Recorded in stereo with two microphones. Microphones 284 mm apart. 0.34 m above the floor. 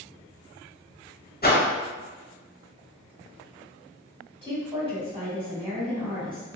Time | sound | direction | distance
1.4 | a whoosh | 35° left (ahead or behind) | 0.8 m
4.4 | a woman speaking | 20° right (ahead or behind) | 1.2 m